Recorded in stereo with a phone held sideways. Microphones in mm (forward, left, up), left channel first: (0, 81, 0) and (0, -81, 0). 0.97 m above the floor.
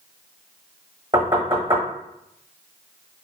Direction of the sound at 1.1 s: 30° right (ahead or behind).